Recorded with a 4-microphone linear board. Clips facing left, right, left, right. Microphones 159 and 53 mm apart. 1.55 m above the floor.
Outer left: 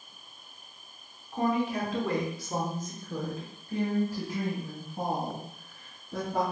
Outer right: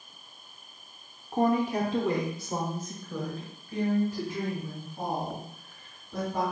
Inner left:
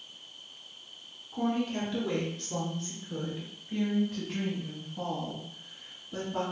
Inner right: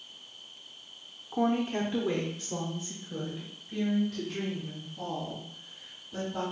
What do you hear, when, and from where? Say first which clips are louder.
1.3 s a woman speaking: outer right 3 dB, inner right 3 dB; 60° right (ahead or behind), 0.7 m; by 6.4 s 40° left (ahead or behind), 3 m